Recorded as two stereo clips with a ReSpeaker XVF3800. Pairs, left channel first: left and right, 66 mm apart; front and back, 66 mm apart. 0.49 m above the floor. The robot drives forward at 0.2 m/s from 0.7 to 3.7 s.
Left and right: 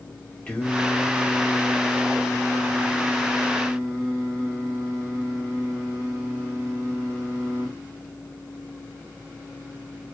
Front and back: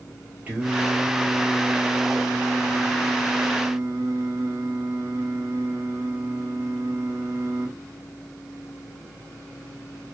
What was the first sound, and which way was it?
Singing, 145° left.